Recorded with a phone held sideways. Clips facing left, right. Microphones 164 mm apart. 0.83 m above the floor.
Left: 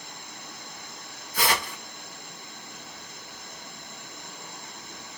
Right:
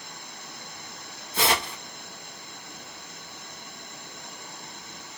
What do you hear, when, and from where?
1.3 s tearing paper: 25° right (ahead or behind), 1.1 m